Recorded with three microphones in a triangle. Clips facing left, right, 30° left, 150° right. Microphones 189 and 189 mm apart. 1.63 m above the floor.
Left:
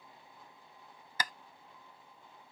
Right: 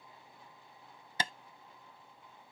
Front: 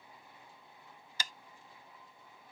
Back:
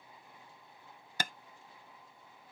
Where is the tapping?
150° right.